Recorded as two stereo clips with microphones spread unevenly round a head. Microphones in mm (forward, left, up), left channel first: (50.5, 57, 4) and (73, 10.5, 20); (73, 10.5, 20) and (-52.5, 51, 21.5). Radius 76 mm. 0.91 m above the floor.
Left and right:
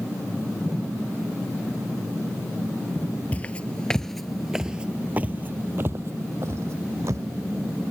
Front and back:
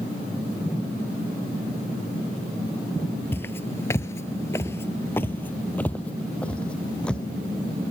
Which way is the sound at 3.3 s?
50° left.